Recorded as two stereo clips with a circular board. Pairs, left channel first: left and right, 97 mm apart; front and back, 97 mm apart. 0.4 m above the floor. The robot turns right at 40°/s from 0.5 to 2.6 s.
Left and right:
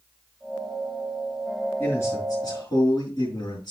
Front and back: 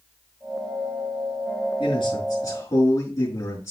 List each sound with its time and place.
1.8 s a man speaking: 10° left, 4 m; by 3.7 s 45° left, 4 m